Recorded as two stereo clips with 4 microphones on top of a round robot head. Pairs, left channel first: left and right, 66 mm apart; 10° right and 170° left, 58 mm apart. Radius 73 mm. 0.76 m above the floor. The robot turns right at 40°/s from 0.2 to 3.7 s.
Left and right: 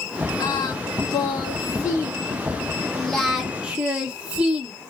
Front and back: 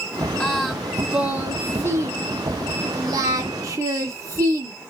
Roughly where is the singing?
Ahead left.